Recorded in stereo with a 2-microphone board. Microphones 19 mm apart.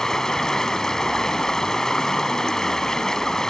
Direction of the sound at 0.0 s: 35° left (ahead or behind).